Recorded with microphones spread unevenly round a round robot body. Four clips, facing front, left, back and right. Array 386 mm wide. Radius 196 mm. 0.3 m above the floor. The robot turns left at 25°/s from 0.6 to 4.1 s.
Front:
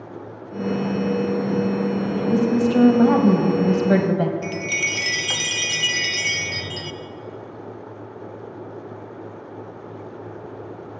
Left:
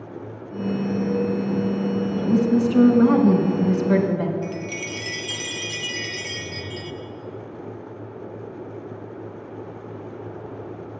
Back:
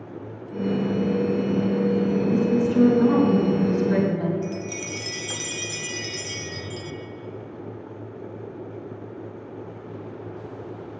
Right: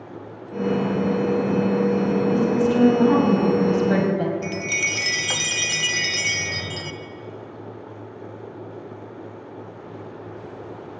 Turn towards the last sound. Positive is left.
turn(degrees=-60)